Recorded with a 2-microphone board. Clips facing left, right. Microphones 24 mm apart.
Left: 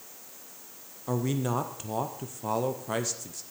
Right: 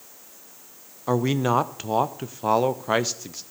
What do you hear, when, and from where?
1.1 s a man speaking: 40° right (ahead or behind), 0.5 m